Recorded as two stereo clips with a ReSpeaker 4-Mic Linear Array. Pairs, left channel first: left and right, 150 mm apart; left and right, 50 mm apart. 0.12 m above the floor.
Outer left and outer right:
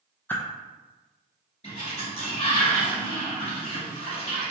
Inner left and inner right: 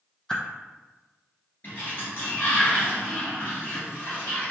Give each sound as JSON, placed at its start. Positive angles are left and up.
{"t": 0.3, "sound": "a whoosh", "side_deg": 15, "distance_m": 0.7}
{"t": 1.6, "sound": "a sliding door", "side_deg": 45, "distance_m": 1.8}